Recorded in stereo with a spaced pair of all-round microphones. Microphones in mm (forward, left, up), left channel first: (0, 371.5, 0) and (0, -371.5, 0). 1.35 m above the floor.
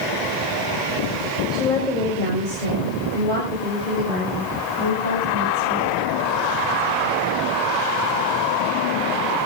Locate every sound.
1.5 s a woman speaking: 75° left (ahead or behind), 6 m; by 6.0 s 85° left, 11.5 m